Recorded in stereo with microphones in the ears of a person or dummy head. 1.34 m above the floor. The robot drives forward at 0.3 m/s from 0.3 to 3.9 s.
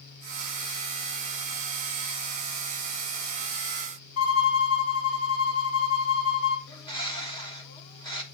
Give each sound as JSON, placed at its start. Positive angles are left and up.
{"t": 4.2, "sound": "a violin", "side_deg": 65, "distance_m": 1.8}
{"t": 6.7, "sound": "a bird", "side_deg": 15, "distance_m": 1.2}